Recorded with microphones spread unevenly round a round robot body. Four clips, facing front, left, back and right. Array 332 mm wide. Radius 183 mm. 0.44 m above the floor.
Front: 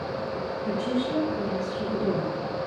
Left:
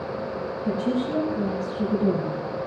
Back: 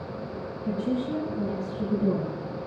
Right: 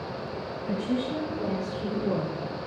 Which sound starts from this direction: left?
A woman speaking, at 0.7 s.